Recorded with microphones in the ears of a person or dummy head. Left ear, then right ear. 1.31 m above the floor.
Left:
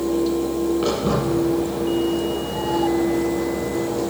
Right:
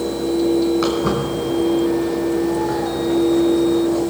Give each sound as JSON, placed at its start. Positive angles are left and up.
{"t": 0.8, "sound": "footsteps", "side_deg": -55, "distance_m": 6.5}